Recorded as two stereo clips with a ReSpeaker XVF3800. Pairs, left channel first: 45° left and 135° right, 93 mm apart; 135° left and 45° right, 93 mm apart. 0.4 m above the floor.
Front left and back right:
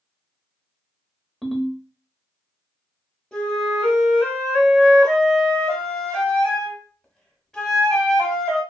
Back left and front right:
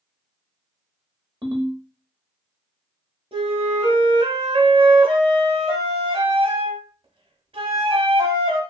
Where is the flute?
35° right, 0.9 m.